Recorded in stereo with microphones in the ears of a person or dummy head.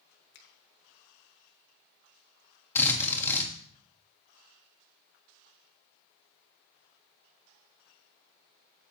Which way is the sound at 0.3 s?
55° left (ahead or behind).